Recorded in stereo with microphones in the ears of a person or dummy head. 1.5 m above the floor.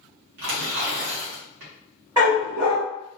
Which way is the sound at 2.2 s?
20° right (ahead or behind).